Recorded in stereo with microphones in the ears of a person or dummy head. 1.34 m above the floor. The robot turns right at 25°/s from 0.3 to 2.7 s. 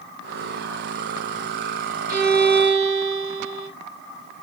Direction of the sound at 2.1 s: 35° right (ahead or behind).